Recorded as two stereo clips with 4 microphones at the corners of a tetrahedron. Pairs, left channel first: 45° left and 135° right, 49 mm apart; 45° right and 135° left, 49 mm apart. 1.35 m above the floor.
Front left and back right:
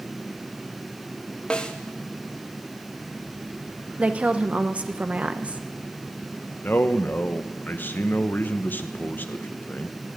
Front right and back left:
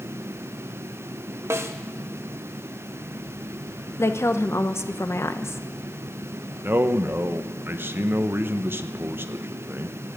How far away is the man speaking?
About 0.8 m.